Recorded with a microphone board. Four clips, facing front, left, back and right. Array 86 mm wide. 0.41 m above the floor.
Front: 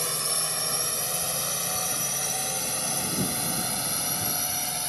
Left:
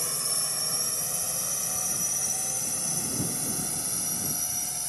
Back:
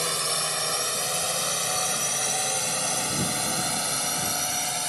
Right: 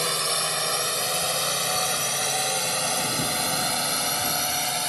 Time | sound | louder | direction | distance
0.0 | a drone | right 11 dB, back 4 dB | 110° right | ?